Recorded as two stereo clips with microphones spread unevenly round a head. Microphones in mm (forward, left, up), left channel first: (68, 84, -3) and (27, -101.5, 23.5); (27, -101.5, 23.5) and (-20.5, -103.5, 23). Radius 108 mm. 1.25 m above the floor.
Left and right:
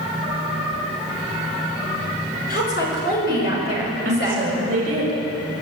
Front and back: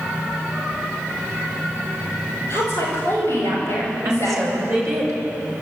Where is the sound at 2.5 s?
130° left, 6.5 m; by 4.5 s 120° left, 5.5 m.